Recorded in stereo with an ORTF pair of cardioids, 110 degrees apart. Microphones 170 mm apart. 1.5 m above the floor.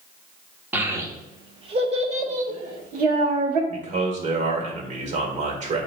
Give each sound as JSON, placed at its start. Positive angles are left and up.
{"t": 0.7, "sound": "a child speaking", "azimuth_deg": -10, "distance_m": 1.0}
{"t": 3.7, "sound": "a man speaking", "azimuth_deg": -50, "distance_m": 1.6}